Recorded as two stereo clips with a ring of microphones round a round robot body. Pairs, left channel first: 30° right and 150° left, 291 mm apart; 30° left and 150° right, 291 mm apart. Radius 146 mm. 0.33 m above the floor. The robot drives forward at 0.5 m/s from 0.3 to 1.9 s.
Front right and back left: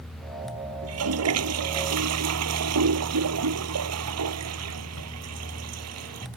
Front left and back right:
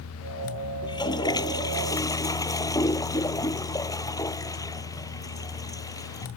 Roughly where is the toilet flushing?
Left.